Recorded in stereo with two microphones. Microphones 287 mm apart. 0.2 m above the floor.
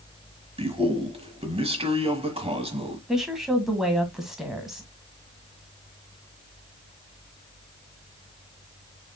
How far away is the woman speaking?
About 1.5 m.